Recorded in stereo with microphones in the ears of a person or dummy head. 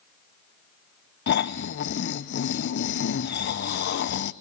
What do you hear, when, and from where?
1.3 s snoring: 55° left (ahead or behind), 0.6 m